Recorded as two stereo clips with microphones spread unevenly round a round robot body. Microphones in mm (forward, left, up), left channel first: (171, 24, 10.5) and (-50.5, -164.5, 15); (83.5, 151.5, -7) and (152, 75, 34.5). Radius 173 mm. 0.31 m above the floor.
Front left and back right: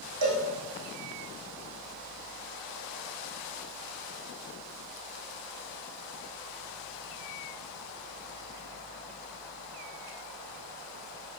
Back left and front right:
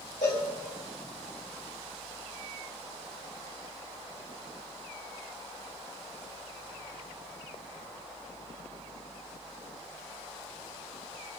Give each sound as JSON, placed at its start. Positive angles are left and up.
{"t": 0.2, "sound": "a cowbell", "azimuth_deg": -175, "distance_m": 3.5}